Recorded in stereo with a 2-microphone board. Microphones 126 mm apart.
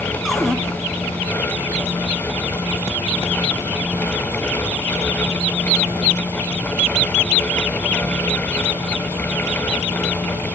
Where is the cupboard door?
Centre (ahead or behind), 2 m.